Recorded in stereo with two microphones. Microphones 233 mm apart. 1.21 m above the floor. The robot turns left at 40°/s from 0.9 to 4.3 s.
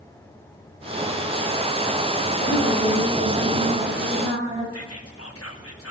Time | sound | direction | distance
2.4 | a woman speaking | 30° left | 7 m
4.7 | whispering | 80° left | 1.8 m